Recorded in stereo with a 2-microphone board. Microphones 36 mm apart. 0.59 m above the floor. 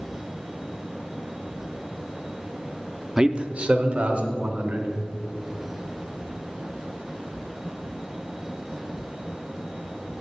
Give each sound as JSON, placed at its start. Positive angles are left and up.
{"t": 3.2, "sound": "a man speaking", "side_deg": -15, "distance_m": 0.6}